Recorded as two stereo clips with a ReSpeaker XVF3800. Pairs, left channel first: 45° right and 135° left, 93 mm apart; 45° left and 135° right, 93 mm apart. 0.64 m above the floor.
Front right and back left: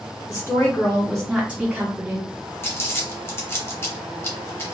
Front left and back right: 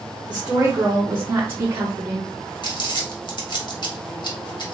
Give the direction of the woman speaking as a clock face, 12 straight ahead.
2 o'clock.